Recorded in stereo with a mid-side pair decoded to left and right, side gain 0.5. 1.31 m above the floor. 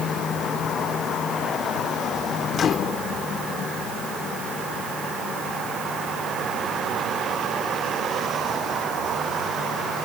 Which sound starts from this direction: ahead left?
A microwave, at 2.5 s.